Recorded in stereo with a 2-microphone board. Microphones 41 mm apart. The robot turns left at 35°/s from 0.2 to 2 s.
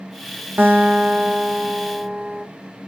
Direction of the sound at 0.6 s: 70° right.